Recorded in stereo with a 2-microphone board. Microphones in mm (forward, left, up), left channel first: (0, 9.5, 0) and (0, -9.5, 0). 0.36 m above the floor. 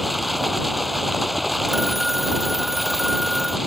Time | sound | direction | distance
0.0 | running water | 5° left (ahead or behind) | ?
1.7 | a phone ringing | 5° right (ahead or behind) | ?